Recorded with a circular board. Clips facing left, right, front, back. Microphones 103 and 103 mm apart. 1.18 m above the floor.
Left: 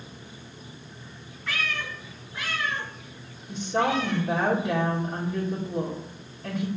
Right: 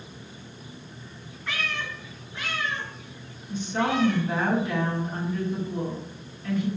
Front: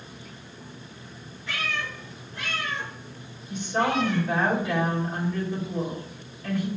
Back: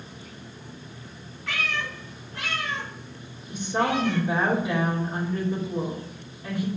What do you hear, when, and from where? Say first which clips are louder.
1.5 s a cat meowing: even, back 1 dB; straight behind, 3 m; by 4.2 s 160° left, 4.5 m
3.5 s a woman speaking: left 1 dB, even; 115° left, 2.5 m